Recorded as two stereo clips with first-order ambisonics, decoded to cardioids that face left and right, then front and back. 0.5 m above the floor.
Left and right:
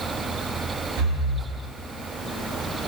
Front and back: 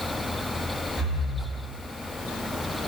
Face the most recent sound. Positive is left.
turn(degrees=-95)